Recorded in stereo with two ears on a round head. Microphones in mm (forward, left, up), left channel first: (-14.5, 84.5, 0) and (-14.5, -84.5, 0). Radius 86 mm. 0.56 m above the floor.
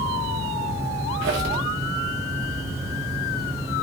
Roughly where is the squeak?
Right.